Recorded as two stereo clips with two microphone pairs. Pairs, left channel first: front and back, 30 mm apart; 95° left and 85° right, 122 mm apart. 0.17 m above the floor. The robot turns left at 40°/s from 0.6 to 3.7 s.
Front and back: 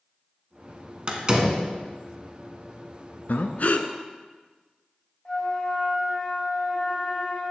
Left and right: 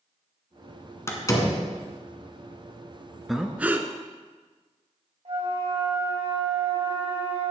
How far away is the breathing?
About 0.5 m.